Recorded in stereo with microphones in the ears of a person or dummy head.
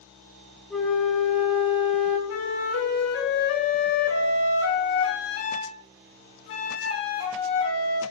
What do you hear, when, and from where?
0.7 s a flute: centre (ahead or behind), 0.6 m
2.3 s a flute: 65° left (ahead or behind), 0.6 m